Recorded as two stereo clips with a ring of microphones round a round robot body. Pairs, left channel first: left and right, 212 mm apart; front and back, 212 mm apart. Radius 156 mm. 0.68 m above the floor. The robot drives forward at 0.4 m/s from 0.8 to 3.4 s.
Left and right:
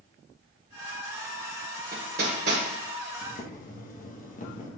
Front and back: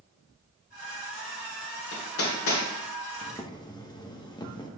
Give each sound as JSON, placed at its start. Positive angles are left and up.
{"t": 1.9, "sound": "hammering", "azimuth_deg": -30, "distance_m": 1.5}
{"t": 3.2, "sound": "boiling", "azimuth_deg": 55, "distance_m": 1.2}